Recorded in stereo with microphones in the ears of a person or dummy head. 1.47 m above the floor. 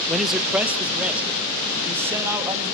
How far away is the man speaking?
About 1.0 m.